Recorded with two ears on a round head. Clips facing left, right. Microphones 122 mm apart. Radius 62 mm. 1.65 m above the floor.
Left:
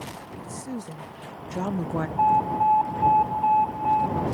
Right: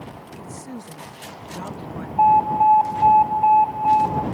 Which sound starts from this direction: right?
An alarm, at 2.2 s.